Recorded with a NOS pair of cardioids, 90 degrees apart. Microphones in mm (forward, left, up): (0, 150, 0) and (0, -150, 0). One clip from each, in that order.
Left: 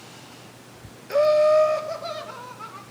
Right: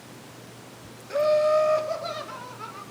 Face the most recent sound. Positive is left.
turn(degrees=0)